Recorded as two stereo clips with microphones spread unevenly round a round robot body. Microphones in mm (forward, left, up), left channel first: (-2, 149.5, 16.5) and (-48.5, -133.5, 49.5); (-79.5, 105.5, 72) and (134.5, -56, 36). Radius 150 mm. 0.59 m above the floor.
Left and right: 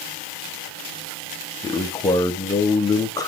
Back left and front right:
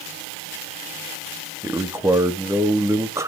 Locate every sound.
1.6 s a man speaking: 25° left, 0.7 m